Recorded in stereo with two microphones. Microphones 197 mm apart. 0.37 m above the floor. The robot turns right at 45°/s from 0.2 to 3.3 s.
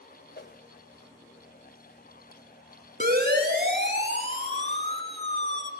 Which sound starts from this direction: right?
A siren, at 3.0 s.